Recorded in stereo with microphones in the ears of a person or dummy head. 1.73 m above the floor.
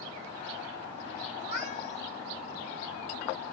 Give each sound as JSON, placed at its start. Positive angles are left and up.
{"t": 1.4, "sound": "a cat meowing", "side_deg": 45, "distance_m": 1.7}